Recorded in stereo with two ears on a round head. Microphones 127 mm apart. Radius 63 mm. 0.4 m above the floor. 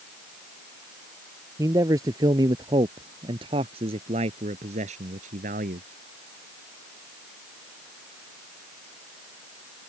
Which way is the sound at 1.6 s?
20° right (ahead or behind).